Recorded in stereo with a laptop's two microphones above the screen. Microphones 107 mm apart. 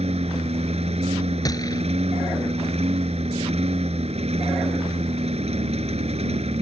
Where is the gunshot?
35° left (ahead or behind).